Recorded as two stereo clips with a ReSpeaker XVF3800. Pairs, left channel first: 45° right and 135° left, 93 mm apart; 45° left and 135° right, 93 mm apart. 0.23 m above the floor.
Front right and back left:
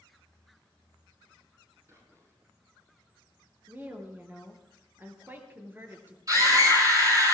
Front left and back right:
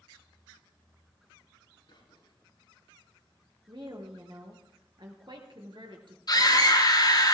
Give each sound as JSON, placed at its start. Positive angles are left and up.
{"t": 1.9, "sound": "whispering", "azimuth_deg": 75, "distance_m": 8.5}
{"t": 3.7, "sound": "a woman speaking", "azimuth_deg": -160, "distance_m": 3.0}
{"t": 6.3, "sound": "a scream", "azimuth_deg": 85, "distance_m": 6.5}